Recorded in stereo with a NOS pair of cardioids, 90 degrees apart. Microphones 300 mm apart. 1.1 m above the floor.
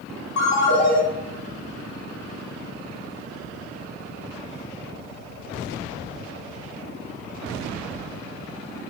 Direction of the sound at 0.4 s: 65° left.